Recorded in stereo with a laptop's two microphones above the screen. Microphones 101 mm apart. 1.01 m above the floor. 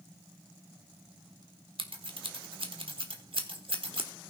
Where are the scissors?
70° right (ahead or behind), 1.1 m.